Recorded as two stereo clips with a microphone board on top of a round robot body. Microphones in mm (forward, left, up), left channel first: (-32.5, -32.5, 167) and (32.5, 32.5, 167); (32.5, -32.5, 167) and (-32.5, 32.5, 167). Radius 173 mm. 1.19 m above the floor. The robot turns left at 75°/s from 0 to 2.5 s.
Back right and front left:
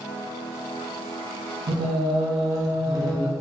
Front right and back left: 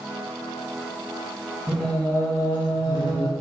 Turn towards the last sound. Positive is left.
turn(degrees=-5)